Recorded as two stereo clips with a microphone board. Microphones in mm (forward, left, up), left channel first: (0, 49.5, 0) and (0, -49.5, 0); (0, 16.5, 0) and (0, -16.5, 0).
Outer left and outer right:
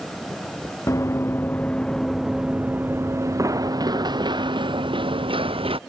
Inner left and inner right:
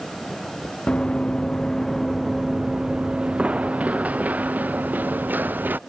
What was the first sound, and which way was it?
Running footsteps, 30° left (ahead or behind).